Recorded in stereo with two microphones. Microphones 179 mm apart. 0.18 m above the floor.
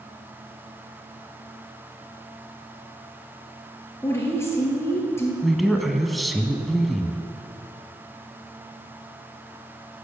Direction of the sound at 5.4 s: Centre (ahead or behind).